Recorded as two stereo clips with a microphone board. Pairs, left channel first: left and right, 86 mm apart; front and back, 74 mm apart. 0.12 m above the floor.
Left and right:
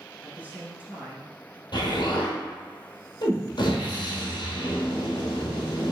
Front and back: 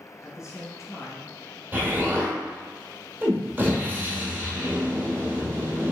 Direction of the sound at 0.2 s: 35° right.